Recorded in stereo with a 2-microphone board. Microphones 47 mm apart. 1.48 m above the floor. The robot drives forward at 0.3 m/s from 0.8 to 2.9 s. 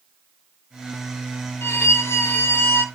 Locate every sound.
1.6 s a violin: 60° left (ahead or behind), 0.7 m; by 2.8 s 50° left (ahead or behind), 0.8 m